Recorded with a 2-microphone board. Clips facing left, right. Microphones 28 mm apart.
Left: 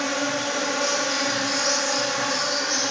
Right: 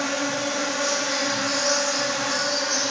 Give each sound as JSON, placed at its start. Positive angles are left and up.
{"t": 0.0, "sound": "an insect", "side_deg": 40, "distance_m": 3.0}